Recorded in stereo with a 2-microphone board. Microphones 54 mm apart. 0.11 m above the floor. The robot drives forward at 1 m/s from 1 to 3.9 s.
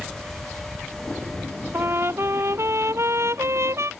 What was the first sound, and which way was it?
A trumpet, 50° right (ahead or behind).